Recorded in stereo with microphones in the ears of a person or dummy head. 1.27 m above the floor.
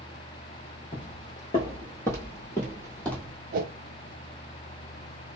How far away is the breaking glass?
I don't hear breaking glass.